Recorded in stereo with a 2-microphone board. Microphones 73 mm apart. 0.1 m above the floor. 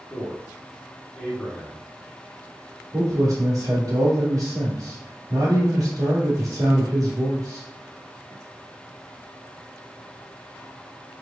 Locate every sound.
0.1 s a man speaking: 15° left (ahead or behind), 1.9 m
2.9 s a man speaking: 45° right (ahead or behind), 1.6 m